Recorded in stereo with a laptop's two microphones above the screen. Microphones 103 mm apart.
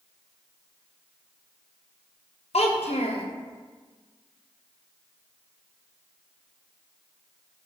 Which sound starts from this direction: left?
A child speaking, at 2.5 s.